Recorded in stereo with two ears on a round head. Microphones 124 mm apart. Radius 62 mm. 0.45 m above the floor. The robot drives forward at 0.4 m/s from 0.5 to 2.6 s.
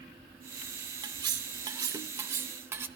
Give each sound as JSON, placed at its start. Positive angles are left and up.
{"t": 1.0, "sound": "cutlery clinking", "side_deg": -35, "distance_m": 0.6}